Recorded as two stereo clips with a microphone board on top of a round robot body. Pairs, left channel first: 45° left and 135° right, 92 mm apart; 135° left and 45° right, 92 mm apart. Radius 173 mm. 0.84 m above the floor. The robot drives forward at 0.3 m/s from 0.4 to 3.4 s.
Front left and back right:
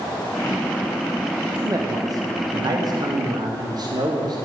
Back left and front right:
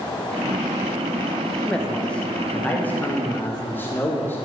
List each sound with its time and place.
1.6 s a man speaking: 145° right, 1.1 m; by 4.4 s 160° right, 1.4 m